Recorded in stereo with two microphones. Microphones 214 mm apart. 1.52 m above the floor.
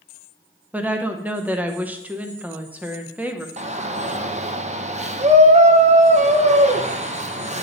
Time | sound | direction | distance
0.7 | a woman speaking | 5° right (ahead or behind) | 0.8 m
3.6 | a shout | 30° right (ahead or behind) | 0.8 m